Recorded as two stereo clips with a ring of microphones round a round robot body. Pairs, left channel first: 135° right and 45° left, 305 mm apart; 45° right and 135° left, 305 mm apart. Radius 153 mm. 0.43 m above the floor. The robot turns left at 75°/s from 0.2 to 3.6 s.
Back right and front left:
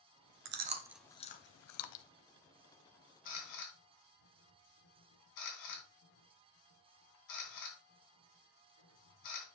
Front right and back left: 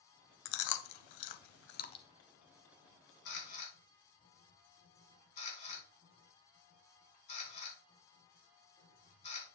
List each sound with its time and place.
0.5 s chewing: 5° right, 0.7 m; by 2.0 s 125° right, 0.7 m
3.2 s a camera shutter: 85° right, 3 m; by 9.5 s 115° right, 3 m